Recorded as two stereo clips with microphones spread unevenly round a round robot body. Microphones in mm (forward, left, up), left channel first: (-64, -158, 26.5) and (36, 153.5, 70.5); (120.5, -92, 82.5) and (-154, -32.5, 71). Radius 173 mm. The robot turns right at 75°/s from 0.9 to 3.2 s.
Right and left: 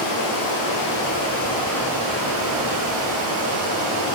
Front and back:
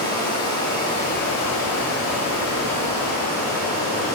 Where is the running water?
90° right, 3.5 m; by 4.2 s 85° left, 3.5 m.